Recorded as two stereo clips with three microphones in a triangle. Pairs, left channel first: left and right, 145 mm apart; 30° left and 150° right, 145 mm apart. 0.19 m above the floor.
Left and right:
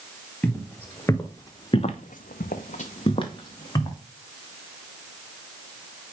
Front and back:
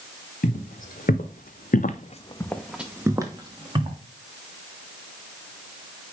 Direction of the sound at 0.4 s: 10° left.